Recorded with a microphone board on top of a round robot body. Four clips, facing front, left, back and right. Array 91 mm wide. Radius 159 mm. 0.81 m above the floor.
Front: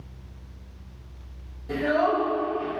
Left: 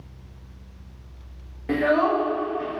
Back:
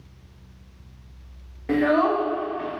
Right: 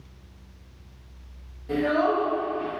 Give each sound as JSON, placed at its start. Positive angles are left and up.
{"t": 1.7, "sound": "a child speaking", "azimuth_deg": 140, "distance_m": 1.1}